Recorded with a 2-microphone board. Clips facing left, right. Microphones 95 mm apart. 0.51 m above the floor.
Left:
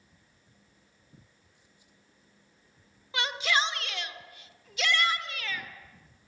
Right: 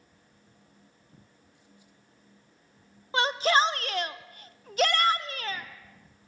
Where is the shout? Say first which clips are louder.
Right 6 dB; 35° right (ahead or behind), 1.1 m.